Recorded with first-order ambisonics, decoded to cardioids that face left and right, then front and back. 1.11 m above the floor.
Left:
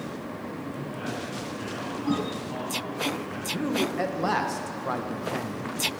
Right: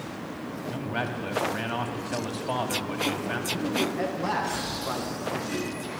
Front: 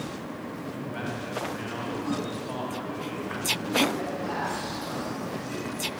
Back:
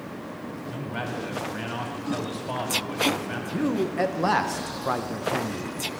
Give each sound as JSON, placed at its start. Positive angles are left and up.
{"t": 0.7, "sound": "a man speaking", "azimuth_deg": -110, "distance_m": 2.0}
{"t": 3.5, "sound": "a man speaking", "azimuth_deg": 160, "distance_m": 0.9}